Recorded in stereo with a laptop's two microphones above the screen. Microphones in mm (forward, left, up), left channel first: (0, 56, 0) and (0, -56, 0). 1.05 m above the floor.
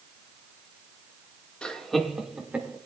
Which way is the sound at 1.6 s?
10° left (ahead or behind).